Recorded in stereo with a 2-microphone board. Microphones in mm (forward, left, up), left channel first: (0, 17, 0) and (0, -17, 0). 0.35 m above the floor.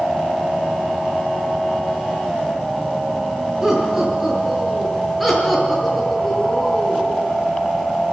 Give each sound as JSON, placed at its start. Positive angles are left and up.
{"t": 3.6, "sound": "laughter", "side_deg": -15, "distance_m": 7.0}